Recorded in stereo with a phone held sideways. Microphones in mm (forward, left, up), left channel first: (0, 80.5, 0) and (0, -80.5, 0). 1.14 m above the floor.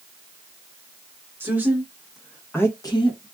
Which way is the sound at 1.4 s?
15° right (ahead or behind).